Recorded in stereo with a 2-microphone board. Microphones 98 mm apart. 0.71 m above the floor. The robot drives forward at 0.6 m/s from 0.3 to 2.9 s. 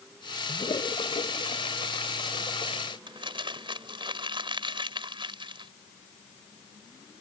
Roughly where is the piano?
I don't hear a piano.